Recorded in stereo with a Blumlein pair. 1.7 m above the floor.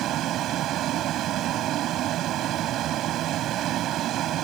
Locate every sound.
0.0 s a vehicle: 35° right